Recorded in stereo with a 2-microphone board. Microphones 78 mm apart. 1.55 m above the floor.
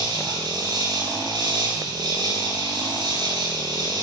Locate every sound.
0.0 s an insect: 75° right (ahead or behind), 9.5 m